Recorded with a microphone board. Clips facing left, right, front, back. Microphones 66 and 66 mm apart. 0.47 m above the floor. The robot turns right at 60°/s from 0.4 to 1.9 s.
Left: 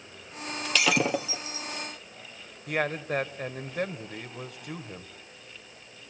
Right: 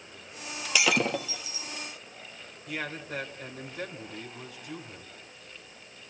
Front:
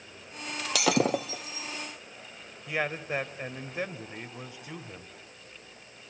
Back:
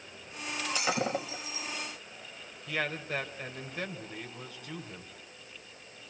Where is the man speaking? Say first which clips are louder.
Left 7 dB, front 3 dB; 65° left, 1.7 m.